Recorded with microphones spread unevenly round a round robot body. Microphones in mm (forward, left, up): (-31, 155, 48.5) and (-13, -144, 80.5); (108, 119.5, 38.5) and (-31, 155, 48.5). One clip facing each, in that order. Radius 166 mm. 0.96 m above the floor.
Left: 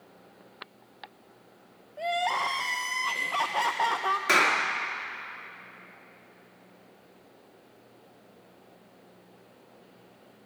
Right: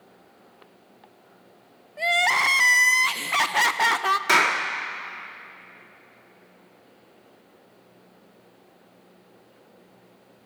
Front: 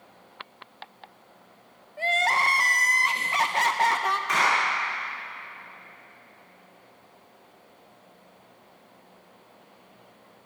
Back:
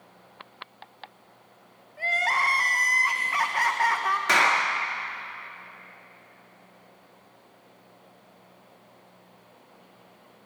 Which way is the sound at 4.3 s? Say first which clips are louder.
Even, back 2 dB; 170° right.